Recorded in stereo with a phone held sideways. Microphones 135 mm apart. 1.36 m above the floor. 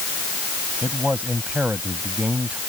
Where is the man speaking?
10° right (ahead or behind).